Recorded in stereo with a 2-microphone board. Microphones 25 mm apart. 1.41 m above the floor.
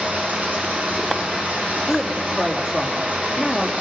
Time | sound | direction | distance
0.0 | running water | 70° right (ahead or behind) | 3.5 m
1.9 | a woman speaking | 20° right (ahead or behind) | 3 m